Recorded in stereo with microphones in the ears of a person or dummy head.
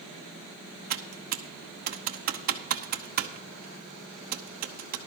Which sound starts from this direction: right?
Typing on a keyboard, at 0.9 s.